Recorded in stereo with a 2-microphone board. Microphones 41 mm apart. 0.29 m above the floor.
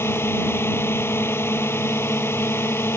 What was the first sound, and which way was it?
A drone, 70° left (ahead or behind).